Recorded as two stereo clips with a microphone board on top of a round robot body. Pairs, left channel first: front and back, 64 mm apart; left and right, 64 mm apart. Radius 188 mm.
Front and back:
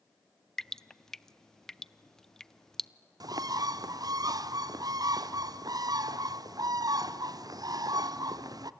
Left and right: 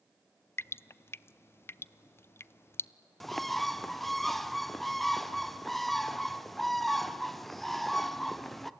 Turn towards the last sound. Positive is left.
turn(degrees=175)